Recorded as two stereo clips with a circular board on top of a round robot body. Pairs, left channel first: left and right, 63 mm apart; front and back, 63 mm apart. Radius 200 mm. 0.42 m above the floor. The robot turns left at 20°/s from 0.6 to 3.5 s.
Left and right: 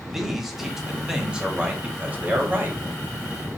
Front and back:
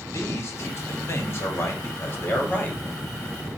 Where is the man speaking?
5° right, 1.5 m; by 3.5 s 60° right, 1.5 m.